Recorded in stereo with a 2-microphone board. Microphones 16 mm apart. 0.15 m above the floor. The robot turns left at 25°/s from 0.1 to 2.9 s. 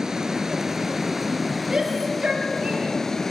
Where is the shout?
40° right (ahead or behind), 3.5 m; by 3.0 s 65° right (ahead or behind), 3.5 m.